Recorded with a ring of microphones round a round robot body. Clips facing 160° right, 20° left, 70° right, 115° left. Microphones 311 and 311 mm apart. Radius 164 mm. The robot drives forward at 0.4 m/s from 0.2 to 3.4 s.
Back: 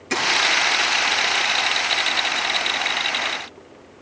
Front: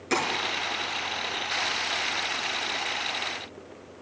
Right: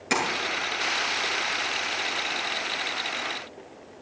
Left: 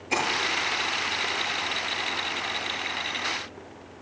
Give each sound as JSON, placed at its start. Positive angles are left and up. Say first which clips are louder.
{"t": 0.1, "sound": "tapping", "louder": "even, right 2 dB", "azimuth_deg": -70, "distance_m": 8.0}